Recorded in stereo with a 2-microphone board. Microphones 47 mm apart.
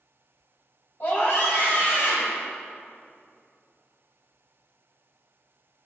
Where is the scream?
45° left (ahead or behind), 3.5 m; by 2.4 s 55° left (ahead or behind), 4 m.